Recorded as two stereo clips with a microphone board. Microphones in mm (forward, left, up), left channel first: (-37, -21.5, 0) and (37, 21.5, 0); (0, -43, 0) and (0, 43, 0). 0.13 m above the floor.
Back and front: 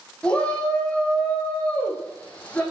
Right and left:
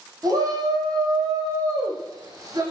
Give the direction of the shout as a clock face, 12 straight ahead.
8 o'clock.